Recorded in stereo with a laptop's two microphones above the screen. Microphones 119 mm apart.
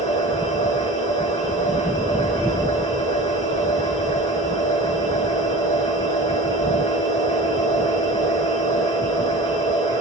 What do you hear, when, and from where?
0.0 s a machine running: 70° left (ahead or behind), 4 m